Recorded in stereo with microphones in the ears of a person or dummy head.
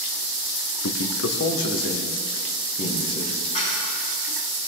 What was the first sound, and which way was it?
A man speaking, 80° left.